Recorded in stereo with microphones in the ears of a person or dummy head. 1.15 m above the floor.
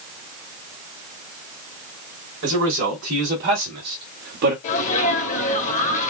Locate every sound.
2.4 s a man speaking: 60° right (ahead or behind), 3 m; by 4.5 s 55° right (ahead or behind), 1.4 m
4.6 s a sneeze: 40° left (ahead or behind), 1.6 m